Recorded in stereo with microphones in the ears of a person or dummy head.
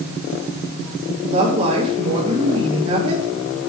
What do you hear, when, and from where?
1.3 s a woman speaking: 40° right (ahead or behind), 2.5 m